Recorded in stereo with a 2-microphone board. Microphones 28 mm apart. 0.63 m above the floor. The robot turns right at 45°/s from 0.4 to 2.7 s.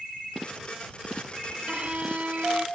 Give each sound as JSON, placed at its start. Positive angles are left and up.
{"t": 1.7, "sound": "a violin", "azimuth_deg": -130}